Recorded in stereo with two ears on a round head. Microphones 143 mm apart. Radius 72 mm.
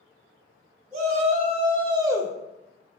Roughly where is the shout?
Right.